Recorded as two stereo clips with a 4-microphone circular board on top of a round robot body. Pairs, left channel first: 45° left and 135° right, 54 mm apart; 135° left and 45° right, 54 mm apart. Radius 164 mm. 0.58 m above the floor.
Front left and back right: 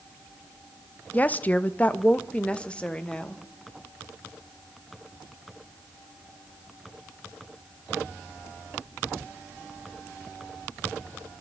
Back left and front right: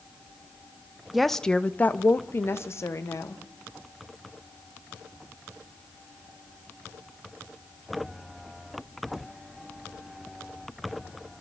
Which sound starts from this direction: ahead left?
A woman speaking, at 1.1 s.